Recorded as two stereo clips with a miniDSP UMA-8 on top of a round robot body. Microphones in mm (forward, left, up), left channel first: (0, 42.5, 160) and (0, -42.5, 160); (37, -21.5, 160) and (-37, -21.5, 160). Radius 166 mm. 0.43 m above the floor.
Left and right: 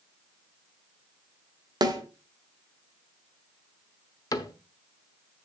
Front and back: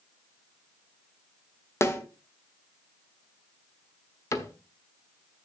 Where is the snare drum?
55° right, 2 m.